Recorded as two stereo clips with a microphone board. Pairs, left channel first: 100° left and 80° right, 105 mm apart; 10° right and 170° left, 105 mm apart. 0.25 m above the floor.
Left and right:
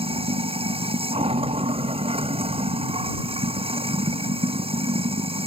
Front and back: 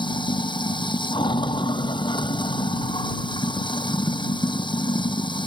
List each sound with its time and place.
0.0 s running water: 55° right